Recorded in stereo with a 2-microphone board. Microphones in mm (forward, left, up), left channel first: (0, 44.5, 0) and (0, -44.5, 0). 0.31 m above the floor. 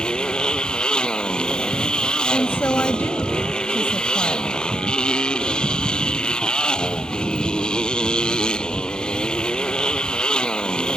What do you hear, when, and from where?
0.0 s a motorcycle: 10° left (ahead or behind)
2.3 s a woman speaking: 25° left (ahead or behind)